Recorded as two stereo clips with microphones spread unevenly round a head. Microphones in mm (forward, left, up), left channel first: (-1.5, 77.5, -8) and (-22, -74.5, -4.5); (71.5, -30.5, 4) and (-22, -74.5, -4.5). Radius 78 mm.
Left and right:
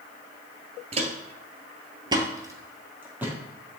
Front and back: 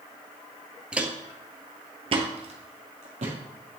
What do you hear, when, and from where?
0.9 s footsteps: 70° right, 1.3 m; by 3.8 s straight behind, 2.5 m